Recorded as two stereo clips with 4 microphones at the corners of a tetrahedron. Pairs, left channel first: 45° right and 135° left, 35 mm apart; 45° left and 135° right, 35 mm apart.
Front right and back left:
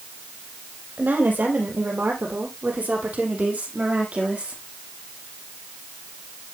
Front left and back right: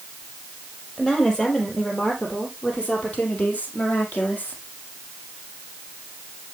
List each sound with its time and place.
1.0 s a woman speaking: 110° left, 4 m; by 4.6 s 80° left, 4.5 m